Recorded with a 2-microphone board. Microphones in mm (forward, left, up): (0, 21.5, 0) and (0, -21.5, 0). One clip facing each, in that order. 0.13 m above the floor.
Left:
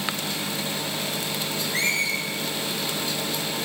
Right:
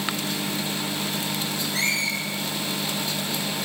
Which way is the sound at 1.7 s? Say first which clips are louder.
Left 1 dB; 35° left (ahead or behind).